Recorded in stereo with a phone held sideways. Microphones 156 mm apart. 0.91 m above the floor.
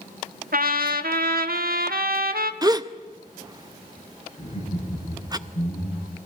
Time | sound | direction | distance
0.5 | a trumpet | 70° right (ahead or behind) | 1.4 m
2.6 | a gasp | 25° right (ahead or behind) | 0.7 m
4.4 | laughter | 45° left (ahead or behind) | 10 m